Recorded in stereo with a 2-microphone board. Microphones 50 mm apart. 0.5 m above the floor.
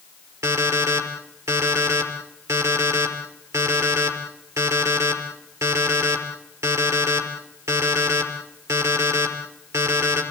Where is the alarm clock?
80° right, 5 m.